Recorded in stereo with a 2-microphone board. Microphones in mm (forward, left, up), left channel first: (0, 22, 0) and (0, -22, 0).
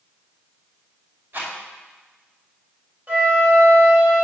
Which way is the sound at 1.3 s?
50° right (ahead or behind).